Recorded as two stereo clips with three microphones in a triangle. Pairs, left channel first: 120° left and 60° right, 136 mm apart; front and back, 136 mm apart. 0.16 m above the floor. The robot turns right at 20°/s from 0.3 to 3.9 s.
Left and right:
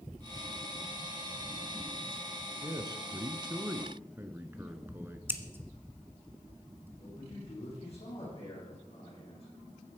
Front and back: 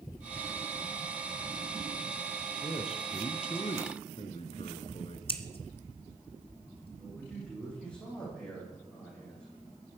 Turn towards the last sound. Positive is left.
turn(degrees=80)